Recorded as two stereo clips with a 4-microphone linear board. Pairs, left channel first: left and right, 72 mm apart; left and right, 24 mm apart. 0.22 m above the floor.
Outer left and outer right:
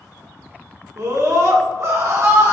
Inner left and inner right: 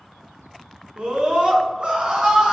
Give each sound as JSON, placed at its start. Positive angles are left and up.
{"t": 1.0, "sound": "a scream", "side_deg": -50, "distance_m": 2.5}